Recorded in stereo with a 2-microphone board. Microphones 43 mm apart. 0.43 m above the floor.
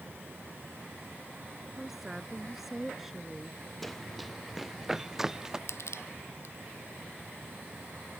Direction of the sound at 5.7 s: 75° left (ahead or behind).